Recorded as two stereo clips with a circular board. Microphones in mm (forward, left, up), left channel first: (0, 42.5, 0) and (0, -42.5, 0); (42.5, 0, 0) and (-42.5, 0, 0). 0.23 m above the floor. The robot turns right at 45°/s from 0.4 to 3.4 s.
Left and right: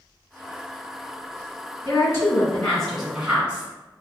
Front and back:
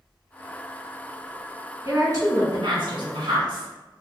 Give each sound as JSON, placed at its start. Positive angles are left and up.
{"t": 1.9, "sound": "a woman speaking", "azimuth_deg": 135, "distance_m": 1.9}